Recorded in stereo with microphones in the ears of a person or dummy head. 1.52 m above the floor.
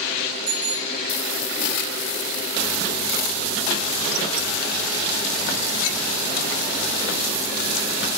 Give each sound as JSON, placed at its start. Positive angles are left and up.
{"t": 0.5, "sound": "a bicycle bell", "side_deg": -25, "distance_m": 7.5}